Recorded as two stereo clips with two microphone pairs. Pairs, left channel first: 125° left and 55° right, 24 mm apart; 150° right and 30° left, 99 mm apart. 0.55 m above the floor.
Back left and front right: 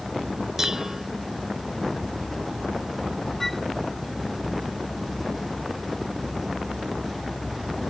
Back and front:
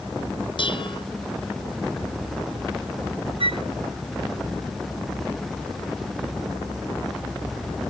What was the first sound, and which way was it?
Dishes clattering, 120° right.